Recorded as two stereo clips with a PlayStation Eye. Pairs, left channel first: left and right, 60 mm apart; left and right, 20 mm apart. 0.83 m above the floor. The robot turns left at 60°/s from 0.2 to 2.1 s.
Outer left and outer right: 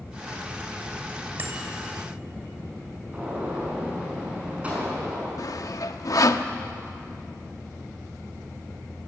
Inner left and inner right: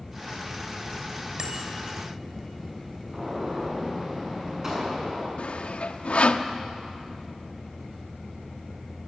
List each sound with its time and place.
1.4 s a bicycle bell: 30° right (ahead or behind), 3 m; by 1.7 s 50° right (ahead or behind), 3 m
3.1 s a gunshot: 20° right (ahead or behind), 6.5 m
5.4 s sawing: 65° left (ahead or behind), 1.0 m